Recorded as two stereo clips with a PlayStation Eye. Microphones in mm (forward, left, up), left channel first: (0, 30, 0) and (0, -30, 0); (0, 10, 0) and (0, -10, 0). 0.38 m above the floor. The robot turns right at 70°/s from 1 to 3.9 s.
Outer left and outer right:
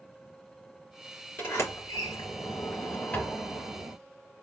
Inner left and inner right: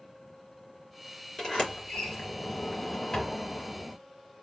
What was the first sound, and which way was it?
A sliding door, 35° left (ahead or behind).